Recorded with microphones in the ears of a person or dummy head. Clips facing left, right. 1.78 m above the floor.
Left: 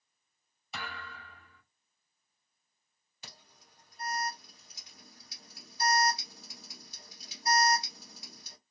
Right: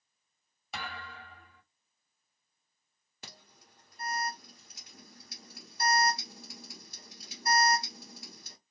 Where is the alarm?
45° right (ahead or behind), 1.9 m.